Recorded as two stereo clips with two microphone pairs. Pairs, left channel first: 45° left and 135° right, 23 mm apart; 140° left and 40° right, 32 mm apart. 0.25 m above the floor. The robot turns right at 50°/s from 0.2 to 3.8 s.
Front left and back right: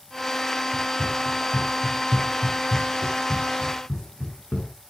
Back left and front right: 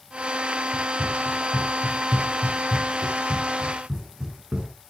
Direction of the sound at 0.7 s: 95° right.